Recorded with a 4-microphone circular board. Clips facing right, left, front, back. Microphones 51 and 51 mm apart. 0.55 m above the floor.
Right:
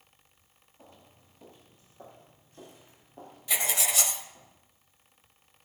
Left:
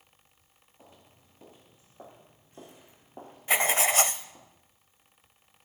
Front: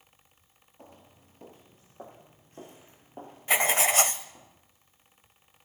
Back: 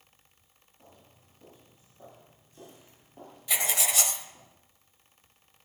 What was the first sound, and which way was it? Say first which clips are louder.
Footsteps: right 1 dB, front 5 dB; 10° left.